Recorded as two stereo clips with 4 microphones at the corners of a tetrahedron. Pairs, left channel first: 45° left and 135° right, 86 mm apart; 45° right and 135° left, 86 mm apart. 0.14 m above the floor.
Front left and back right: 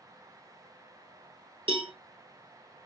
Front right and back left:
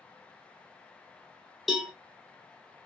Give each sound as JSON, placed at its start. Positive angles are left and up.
{"t": 1.7, "sound": "a cowbell", "azimuth_deg": -135, "distance_m": 0.8}